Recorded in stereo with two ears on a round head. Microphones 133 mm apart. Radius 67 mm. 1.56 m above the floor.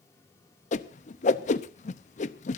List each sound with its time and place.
0.7 s a whoosh: 50° left (ahead or behind), 0.8 m